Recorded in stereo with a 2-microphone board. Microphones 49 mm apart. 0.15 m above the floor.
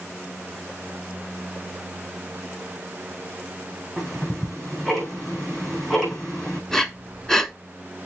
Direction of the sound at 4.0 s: 10° left (ahead or behind).